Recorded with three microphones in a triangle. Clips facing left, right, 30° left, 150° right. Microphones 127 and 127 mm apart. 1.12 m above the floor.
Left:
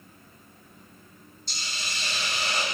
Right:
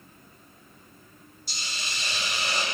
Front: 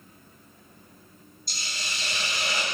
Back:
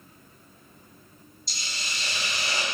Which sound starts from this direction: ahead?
A hiss, at 1.5 s.